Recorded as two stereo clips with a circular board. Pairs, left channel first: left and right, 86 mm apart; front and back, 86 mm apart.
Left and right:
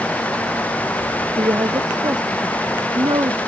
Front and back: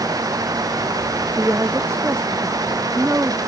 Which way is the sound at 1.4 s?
120° right.